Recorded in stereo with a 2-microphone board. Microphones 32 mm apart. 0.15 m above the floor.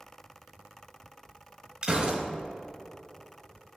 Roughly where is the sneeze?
I don't hear a sneeze.